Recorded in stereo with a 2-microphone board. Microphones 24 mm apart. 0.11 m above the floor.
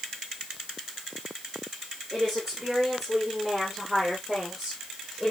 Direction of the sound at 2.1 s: 5° right (ahead or behind).